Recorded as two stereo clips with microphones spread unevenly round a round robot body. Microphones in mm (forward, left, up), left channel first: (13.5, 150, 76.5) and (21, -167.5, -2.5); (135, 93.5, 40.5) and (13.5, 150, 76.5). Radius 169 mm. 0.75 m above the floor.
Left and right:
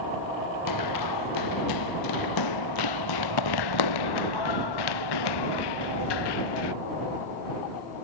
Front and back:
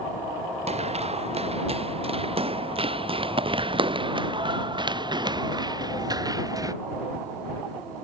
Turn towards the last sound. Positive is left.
turn(degrees=95)